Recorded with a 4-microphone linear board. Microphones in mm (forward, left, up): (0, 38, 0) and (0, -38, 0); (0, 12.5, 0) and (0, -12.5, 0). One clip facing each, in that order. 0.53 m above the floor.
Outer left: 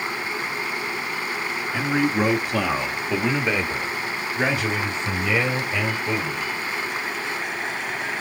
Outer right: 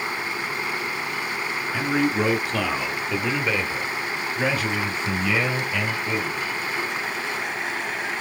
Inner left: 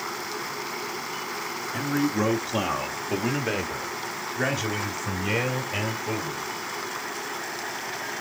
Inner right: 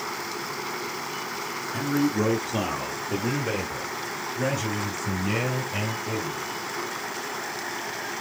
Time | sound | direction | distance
1.7 | a man speaking | centre (ahead or behind) | 1.1 m